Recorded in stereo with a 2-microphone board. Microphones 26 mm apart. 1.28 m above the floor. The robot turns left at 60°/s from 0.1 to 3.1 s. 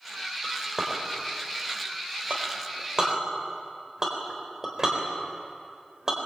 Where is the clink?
5° left (ahead or behind), 4 m; by 6.2 s 25° right (ahead or behind), 4 m.